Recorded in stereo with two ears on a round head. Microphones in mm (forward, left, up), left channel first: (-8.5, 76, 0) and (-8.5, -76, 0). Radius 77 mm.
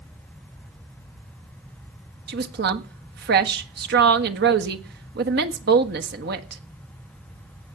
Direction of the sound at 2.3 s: 60° right (ahead or behind).